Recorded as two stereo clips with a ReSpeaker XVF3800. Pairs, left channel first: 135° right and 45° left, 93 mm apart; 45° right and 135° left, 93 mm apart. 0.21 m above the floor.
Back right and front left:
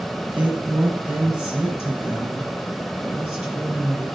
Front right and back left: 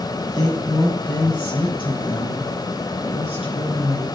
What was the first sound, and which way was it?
A woman speaking, 30° right.